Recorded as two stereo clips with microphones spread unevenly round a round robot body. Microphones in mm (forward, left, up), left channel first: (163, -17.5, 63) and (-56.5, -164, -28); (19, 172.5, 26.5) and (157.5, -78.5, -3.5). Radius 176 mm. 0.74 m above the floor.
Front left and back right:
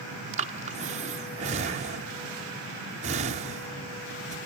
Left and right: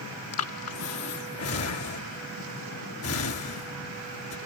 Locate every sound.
0.3 s breathing: 160° left